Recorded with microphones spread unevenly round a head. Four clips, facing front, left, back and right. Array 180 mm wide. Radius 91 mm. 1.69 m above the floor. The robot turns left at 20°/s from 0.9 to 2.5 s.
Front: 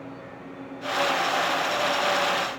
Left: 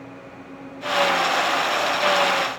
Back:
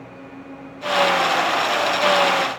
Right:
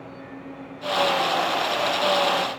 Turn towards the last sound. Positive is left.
No sound to turn to.